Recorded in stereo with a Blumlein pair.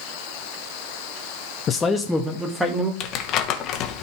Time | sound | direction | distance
1.7 | a man speaking | 25° left | 0.8 m
3.0 | crumpling | 35° left | 1.4 m